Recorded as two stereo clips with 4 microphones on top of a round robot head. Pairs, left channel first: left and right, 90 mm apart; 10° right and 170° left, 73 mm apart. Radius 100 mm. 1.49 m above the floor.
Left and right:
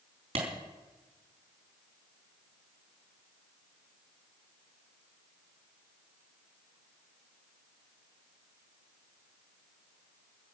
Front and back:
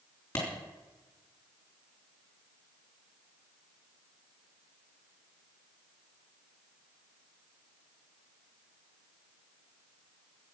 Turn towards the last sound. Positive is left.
turn(degrees=-80)